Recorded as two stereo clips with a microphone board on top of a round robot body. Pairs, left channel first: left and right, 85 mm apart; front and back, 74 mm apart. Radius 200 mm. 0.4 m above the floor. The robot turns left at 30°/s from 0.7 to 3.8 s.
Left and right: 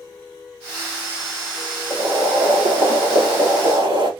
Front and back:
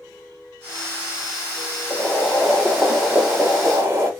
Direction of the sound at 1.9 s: 65° right.